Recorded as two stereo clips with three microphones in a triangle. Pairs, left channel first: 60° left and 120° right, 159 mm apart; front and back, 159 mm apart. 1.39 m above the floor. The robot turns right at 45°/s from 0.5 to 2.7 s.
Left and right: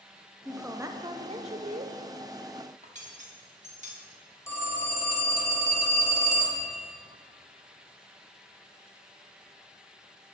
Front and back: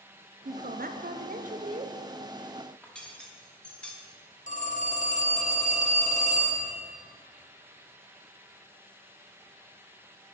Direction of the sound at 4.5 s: 10° right.